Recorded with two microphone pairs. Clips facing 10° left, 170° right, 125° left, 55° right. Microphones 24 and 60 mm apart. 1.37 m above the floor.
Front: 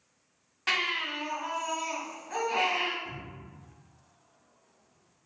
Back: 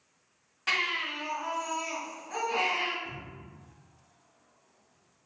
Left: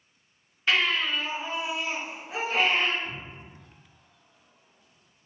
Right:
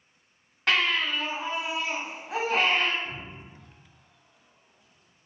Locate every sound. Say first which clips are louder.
0.7 s a baby crying: even, even; 70° right, 1.7 m
3.0 s a cupboard door: even, even; 160° left, 1.0 m